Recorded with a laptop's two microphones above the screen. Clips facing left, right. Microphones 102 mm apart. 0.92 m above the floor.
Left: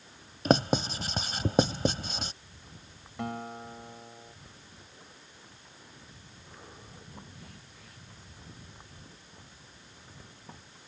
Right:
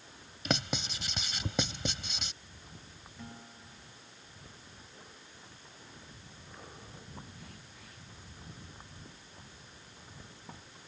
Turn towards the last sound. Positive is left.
turn(degrees=85)